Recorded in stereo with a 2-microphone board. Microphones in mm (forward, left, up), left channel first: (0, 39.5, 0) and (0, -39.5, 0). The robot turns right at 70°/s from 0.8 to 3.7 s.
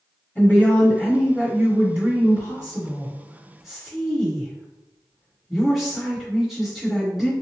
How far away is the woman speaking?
About 1.6 m.